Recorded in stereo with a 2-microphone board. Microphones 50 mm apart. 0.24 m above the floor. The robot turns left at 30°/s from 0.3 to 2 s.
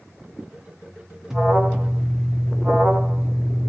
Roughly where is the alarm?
Centre.